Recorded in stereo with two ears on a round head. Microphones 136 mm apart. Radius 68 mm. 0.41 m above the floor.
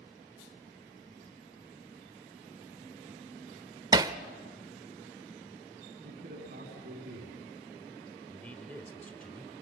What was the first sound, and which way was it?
Hammering, 25° right (ahead or behind).